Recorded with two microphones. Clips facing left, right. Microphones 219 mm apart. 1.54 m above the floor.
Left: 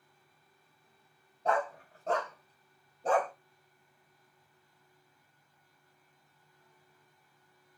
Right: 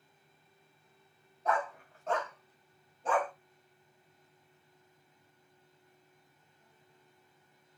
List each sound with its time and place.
1.4 s a dog barking: 30° left (ahead or behind), 2 m; by 3.3 s 40° left (ahead or behind), 1.7 m